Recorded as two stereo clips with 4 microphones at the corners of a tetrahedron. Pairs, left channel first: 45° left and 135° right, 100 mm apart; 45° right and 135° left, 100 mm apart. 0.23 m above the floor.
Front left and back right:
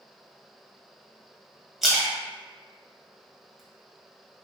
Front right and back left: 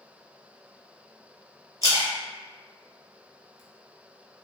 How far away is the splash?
About 0.8 m.